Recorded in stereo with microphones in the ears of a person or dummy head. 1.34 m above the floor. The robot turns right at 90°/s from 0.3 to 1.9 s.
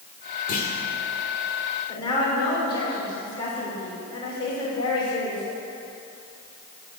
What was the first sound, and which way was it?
A clunk, 45° left (ahead or behind).